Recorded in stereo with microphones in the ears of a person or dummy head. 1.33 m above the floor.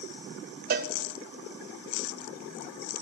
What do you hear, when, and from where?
0.7 s a cowbell: 45° right (ahead or behind), 1.0 m